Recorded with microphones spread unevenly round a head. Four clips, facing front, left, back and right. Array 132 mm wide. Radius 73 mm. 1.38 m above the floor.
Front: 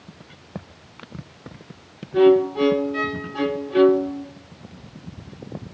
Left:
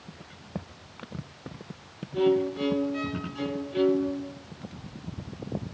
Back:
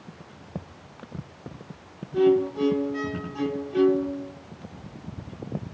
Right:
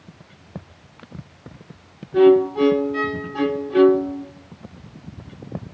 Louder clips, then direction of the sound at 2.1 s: Right 10 dB, front 5 dB; 40° right.